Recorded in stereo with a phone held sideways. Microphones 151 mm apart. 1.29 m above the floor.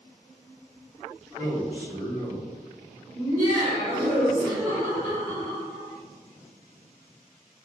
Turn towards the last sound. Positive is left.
turn(degrees=-40)  # may be behind; listen again after turning